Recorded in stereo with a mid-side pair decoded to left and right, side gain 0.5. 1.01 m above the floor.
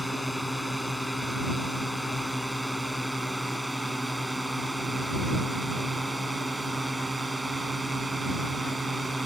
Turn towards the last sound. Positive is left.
turn(degrees=-20)